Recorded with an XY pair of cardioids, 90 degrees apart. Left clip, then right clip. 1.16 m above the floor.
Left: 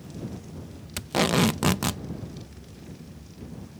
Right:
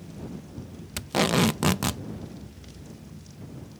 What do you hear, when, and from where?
1.0 s tape being pulled: 5° right